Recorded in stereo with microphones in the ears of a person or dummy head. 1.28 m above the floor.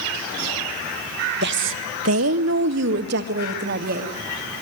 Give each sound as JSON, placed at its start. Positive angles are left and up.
{"t": 1.4, "sound": "a woman speaking", "side_deg": -60, "distance_m": 1.3}